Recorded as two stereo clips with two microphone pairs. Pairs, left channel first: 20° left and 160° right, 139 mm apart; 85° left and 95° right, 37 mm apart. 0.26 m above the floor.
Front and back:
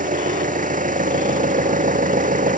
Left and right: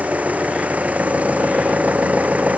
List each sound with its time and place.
0.0 s an engine running: 140° right